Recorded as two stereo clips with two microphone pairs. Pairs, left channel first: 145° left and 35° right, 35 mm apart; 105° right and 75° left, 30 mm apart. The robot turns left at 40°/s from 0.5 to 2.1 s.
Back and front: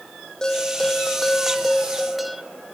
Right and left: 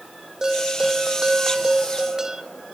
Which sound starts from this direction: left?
A bell, at 0.4 s.